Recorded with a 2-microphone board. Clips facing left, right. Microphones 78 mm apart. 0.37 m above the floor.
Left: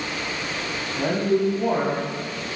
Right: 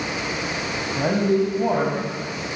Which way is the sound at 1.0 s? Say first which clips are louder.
Right 1 dB; 20° right (ahead or behind).